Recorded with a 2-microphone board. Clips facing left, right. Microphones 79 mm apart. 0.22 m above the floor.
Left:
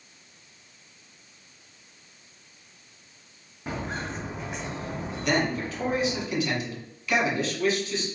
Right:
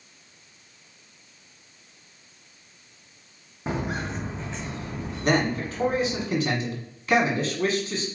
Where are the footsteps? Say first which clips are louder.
Right 3 dB; 20° right (ahead or behind), 0.8 m; by 6.2 s 45° left (ahead or behind), 1.7 m.